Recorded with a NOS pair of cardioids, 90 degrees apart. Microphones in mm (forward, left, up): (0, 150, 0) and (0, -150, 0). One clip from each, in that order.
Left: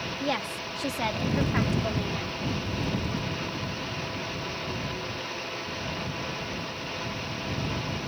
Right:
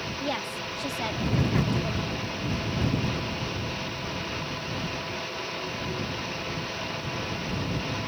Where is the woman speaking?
20° left; by 2.4 s 50° left.